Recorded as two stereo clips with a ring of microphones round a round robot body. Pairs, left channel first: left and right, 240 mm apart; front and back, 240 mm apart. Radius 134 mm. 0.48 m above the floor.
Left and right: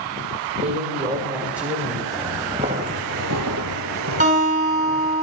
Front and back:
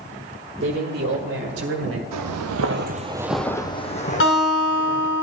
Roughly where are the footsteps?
Behind.